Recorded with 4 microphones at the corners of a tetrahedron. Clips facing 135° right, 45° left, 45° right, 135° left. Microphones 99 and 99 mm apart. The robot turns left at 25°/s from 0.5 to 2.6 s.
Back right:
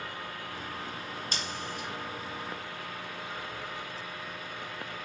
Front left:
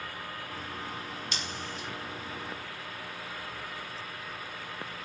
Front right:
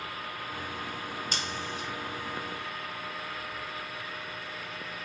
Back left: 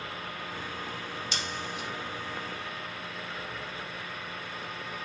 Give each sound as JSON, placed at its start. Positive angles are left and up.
{"t": 1.3, "sound": "scissors", "azimuth_deg": -90, "distance_m": 1.2}